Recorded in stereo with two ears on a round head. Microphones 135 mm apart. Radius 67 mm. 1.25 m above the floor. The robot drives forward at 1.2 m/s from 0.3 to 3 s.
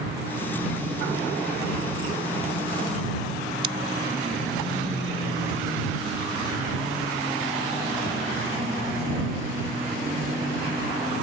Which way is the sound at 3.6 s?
35° right (ahead or behind).